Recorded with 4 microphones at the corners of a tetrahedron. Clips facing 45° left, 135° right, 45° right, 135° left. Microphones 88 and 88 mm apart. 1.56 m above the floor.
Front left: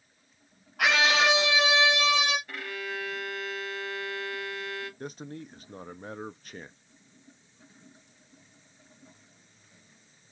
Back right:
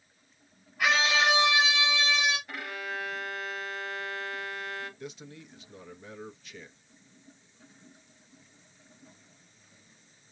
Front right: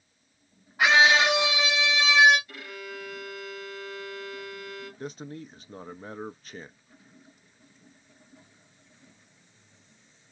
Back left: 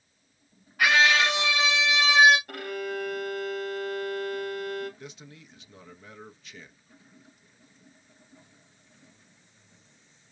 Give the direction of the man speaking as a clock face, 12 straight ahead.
12 o'clock.